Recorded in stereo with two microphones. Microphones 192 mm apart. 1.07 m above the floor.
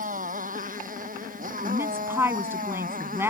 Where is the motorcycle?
45° right (ahead or behind).